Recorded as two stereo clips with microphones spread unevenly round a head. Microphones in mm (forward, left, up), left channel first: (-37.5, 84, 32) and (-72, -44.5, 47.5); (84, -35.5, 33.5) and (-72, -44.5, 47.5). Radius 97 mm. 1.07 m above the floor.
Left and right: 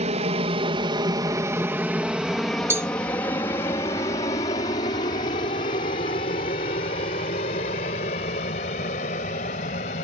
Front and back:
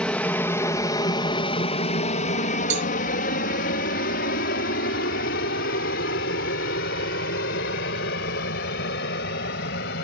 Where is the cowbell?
Straight behind.